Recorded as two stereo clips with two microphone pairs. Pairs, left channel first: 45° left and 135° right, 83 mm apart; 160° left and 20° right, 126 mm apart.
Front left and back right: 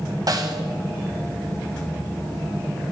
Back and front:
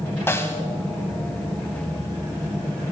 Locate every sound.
0.3 s a snare drum: 135° right, 1.0 m